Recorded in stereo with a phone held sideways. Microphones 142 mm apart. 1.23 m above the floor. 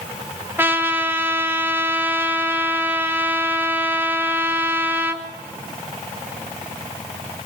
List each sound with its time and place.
0.6 s a trumpet: 15° right (ahead or behind), 3.5 m